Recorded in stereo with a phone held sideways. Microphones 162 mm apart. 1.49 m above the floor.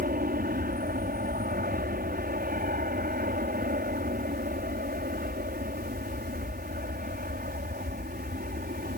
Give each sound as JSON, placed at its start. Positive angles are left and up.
{"t": 0.0, "sound": "an aircraft", "side_deg": -60}